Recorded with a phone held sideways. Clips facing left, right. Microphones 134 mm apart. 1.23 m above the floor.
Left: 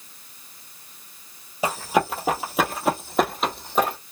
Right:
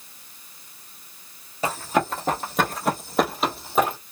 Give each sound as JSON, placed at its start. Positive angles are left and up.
{"t": 1.6, "sound": "running footsteps", "side_deg": 10, "distance_m": 1.3}